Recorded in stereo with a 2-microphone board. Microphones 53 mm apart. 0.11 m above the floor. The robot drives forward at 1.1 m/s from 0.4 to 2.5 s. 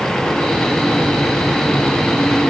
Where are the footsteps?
No footsteps in this recording.